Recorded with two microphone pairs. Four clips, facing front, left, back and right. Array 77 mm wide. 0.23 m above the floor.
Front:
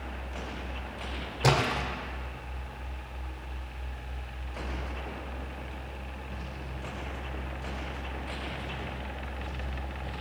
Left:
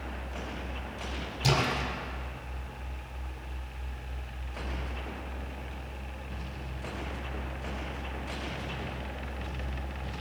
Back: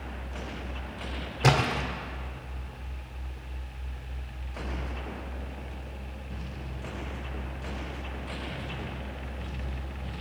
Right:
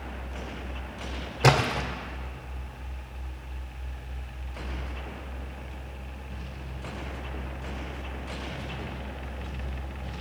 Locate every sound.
1.4 s a splash: 100° right, 2 m